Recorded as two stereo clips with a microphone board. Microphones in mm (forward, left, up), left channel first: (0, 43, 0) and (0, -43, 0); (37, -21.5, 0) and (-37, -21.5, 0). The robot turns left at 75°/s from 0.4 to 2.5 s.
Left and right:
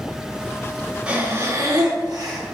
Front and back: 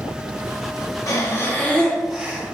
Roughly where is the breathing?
Ahead.